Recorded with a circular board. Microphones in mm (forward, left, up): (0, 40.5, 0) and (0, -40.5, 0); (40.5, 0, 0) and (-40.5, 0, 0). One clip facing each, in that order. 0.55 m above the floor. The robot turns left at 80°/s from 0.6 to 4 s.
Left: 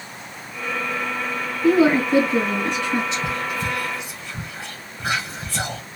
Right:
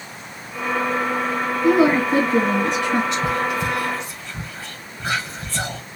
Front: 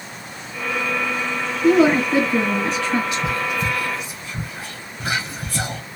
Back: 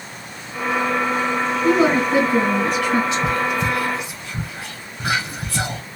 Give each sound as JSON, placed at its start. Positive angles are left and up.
{"t": 1.6, "sound": "a woman speaking", "azimuth_deg": -5, "distance_m": 2.0}
{"t": 3.1, "sound": "whispering", "azimuth_deg": -120, "distance_m": 2.0}